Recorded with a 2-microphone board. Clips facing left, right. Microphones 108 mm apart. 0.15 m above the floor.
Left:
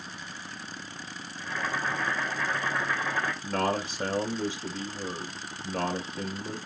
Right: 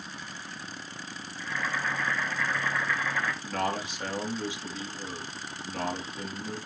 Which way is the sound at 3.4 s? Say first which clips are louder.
Left 2 dB; 35° left (ahead or behind).